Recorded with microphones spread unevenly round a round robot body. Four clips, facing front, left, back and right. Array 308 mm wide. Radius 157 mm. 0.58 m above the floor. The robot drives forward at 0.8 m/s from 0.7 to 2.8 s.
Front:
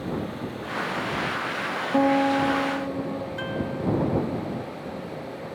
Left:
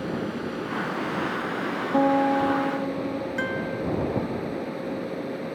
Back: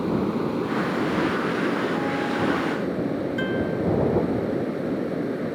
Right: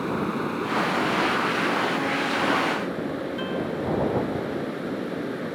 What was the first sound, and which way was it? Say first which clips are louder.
Running water: right 3 dB, back 7 dB; 165° right.